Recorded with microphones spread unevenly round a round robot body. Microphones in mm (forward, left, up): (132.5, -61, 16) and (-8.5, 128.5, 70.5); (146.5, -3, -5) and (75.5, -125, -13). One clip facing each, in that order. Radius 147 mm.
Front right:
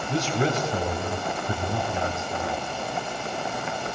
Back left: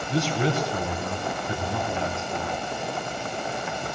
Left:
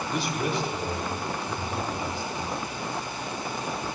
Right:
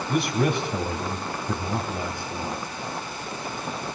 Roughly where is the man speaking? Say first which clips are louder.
Even, right 6 dB; right.